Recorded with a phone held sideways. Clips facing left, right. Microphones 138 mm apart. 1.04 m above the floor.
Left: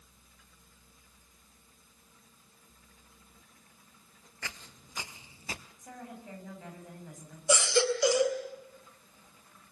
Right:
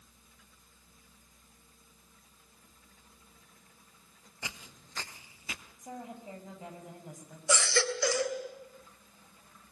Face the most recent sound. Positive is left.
turn(degrees=20)  # may be behind; listen again after turning